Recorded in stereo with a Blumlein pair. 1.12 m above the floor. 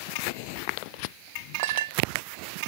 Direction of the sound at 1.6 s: 50° right.